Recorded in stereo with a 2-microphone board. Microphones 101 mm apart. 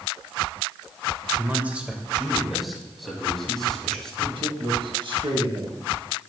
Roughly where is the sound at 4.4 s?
Right.